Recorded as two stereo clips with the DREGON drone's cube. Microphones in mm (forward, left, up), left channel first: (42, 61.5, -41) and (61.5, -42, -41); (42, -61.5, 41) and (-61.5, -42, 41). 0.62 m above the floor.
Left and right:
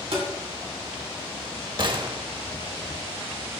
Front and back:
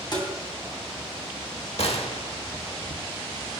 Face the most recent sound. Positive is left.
turn(degrees=-35)